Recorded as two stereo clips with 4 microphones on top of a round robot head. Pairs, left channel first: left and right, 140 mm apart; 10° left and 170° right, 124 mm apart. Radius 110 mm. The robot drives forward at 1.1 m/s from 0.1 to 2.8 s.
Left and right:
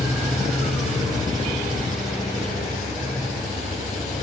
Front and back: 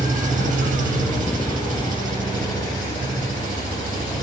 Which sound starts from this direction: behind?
An engine running, at 0.0 s.